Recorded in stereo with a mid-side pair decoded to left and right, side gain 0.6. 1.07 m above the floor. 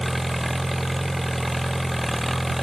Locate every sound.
0.0 s an engine running: 5° right